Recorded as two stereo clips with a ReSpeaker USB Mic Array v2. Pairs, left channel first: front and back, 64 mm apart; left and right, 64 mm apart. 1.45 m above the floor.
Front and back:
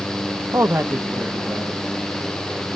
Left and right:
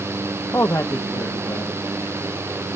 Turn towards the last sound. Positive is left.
turn(degrees=110)